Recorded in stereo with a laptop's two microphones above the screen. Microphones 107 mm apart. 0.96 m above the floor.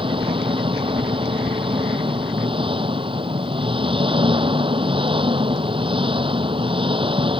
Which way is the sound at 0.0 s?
55° right (ahead or behind).